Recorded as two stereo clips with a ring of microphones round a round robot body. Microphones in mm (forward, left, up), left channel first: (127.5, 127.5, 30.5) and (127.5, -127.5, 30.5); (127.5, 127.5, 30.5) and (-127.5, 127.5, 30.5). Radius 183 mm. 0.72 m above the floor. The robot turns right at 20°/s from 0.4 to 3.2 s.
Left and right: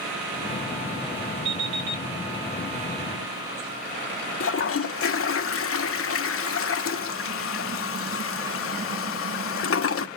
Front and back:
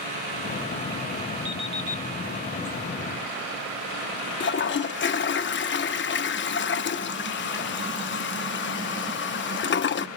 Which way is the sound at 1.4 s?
150° right.